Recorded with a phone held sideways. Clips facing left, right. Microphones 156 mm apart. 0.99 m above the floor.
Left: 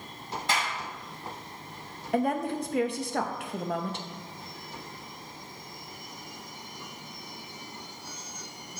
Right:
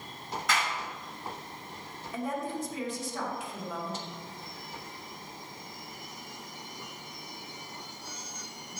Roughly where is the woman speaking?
Left.